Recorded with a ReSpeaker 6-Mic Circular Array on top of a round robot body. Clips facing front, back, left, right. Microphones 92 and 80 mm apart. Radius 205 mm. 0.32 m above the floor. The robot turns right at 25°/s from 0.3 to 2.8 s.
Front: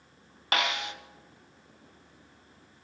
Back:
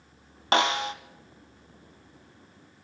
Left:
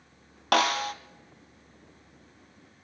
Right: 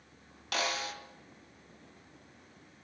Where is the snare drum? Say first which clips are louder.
Back 6 dB, left 10 dB; 120° left, 1.3 m; by 0.9 s 130° left, 1.3 m.